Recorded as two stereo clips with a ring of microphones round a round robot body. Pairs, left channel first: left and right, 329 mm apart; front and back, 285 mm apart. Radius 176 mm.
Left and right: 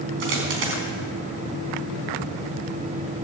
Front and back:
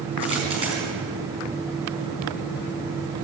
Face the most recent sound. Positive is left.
turn(degrees=-105)